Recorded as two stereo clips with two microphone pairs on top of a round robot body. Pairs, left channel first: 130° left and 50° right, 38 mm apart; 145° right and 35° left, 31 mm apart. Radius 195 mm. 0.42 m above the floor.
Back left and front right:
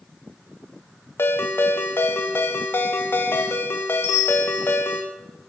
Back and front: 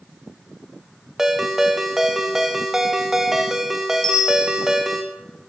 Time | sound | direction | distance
1.2 | a ringtone | 110° left | 1.7 m
4.0 | a bell | 135° left | 4 m